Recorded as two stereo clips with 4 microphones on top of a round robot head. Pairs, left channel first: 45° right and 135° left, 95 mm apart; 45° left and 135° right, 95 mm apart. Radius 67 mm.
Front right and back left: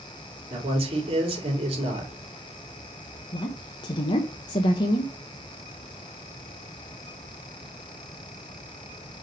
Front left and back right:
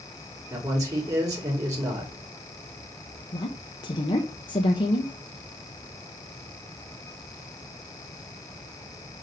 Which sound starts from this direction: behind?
A man speaking, at 0.5 s.